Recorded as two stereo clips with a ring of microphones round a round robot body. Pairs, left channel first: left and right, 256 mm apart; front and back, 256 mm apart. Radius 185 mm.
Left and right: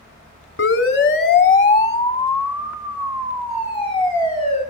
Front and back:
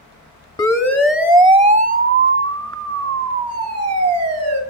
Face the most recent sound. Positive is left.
turn(degrees=-160)